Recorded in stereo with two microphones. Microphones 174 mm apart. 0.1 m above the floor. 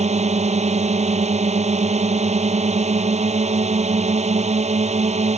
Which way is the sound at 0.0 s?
35° right (ahead or behind).